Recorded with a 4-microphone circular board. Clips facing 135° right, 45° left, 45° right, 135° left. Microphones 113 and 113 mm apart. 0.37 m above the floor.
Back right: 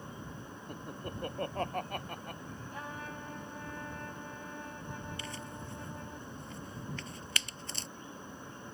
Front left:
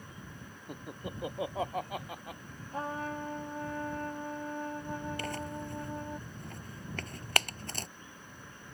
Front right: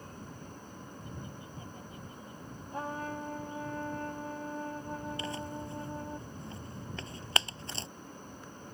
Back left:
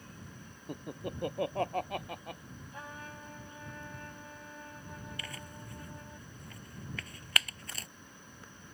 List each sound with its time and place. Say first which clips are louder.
0.7 s laughter: front left 1 dB, back left 6 dB; 125° left; by 2.4 s 130° left
2.7 s a trumpet: front left 9 dB, front right 10 dB; 5° right
5.2 s tearing paper: front left 6 dB, front right 9 dB; 15° left